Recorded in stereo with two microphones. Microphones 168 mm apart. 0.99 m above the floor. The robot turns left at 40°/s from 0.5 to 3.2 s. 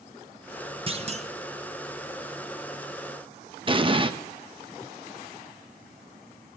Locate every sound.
0.9 s a clunk: 35° right (ahead or behind), 1.2 m; by 1.3 s 40° right (ahead or behind), 1.2 m
3.7 s an explosion: 30° right (ahead or behind), 1.0 m